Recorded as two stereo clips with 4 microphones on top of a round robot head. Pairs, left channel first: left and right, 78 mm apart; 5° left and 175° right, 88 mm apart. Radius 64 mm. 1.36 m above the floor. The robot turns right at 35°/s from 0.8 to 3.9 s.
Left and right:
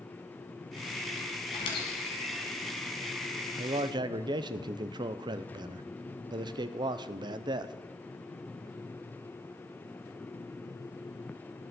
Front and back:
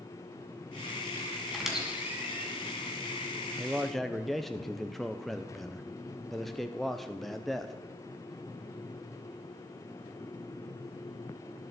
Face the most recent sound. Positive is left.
turn(degrees=-80)